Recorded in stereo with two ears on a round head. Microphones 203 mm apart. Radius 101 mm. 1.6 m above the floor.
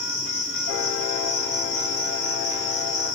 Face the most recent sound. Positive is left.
turn(degrees=70)  # may be behind; listen again after turning